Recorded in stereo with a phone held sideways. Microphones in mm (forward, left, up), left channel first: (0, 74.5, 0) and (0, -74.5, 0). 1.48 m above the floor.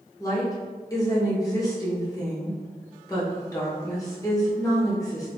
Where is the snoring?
No snoring in this recording.